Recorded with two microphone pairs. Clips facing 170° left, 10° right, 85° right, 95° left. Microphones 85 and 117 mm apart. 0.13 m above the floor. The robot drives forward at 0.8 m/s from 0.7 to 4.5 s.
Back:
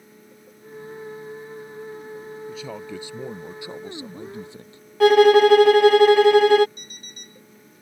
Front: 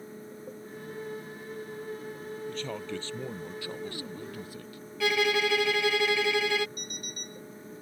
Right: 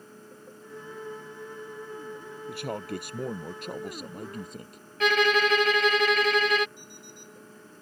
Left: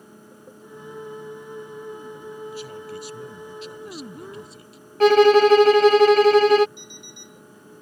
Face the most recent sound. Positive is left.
turn(degrees=110)